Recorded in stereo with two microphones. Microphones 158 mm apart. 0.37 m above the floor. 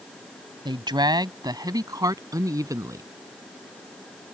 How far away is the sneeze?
I don't hear a sneeze.